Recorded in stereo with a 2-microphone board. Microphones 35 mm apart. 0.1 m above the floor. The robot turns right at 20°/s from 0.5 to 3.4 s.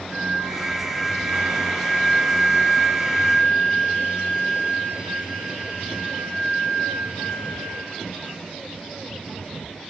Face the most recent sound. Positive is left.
turn(degrees=-45)